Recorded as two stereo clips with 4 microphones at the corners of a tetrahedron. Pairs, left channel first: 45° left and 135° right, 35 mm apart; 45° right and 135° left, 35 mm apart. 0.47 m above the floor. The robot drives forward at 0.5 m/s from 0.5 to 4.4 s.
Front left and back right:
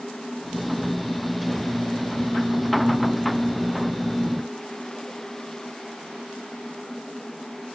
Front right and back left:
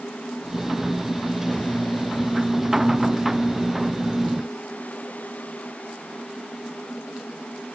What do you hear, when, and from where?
Only background noise.